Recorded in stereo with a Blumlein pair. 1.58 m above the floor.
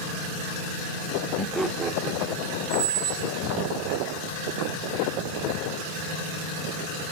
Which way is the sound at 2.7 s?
45° right.